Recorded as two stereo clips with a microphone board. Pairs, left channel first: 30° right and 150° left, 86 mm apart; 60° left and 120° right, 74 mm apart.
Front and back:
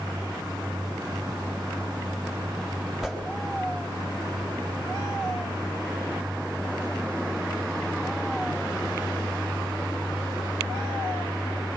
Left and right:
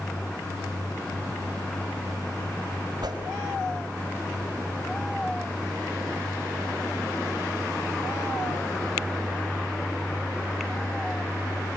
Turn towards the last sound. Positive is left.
turn(degrees=-125)